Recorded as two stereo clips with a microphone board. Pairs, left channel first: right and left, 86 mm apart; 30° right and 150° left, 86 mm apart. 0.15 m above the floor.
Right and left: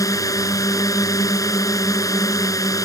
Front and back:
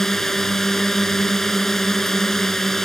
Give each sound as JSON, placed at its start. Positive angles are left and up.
{"t": 0.0, "sound": "a drone", "azimuth_deg": -115}